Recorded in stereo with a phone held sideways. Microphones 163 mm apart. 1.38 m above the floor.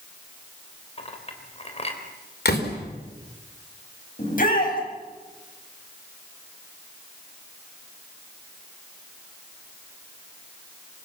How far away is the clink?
About 3.5 m.